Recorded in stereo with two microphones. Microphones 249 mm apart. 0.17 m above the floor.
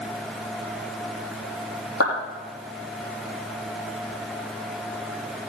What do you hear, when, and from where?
2.0 s a clap: 70° left (ahead or behind), 5.5 m